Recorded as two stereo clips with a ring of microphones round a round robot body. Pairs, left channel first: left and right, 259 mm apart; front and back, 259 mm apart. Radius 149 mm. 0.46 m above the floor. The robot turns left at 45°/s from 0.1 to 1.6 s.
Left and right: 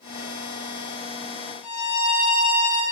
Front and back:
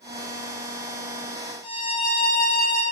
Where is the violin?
70° left, 4 m.